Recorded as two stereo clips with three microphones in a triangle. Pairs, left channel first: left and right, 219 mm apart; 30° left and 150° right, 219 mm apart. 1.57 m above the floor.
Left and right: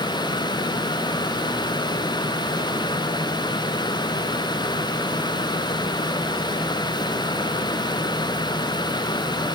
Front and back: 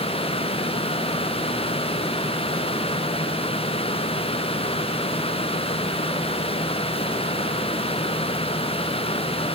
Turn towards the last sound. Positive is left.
No sound to turn to.